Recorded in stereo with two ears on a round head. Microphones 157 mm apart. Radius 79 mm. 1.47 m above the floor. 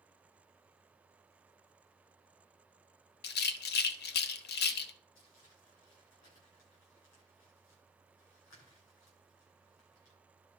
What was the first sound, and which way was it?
A rattle, 65° left (ahead or behind).